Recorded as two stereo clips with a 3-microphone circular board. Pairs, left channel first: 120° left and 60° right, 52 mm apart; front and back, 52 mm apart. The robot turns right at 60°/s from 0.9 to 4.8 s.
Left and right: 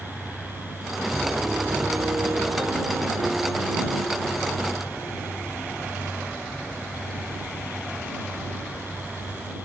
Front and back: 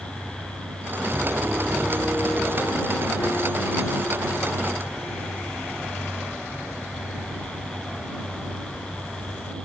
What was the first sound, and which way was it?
A piano, 130° right.